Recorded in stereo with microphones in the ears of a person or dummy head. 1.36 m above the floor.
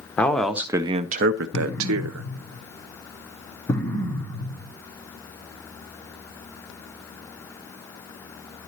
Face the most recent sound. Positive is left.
turn(degrees=15)  # may be behind; listen again after turning